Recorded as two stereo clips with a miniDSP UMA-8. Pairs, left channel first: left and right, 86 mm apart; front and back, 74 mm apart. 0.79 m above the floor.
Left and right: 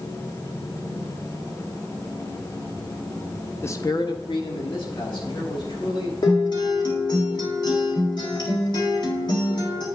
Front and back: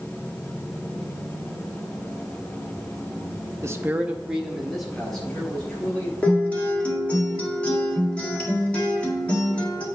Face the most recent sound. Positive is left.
turn(degrees=70)